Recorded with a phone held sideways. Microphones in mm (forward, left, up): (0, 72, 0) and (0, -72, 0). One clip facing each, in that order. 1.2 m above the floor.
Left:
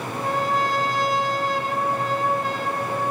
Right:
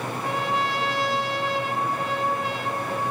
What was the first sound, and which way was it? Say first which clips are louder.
A trumpet: left 4 dB; 40° left (ahead or behind).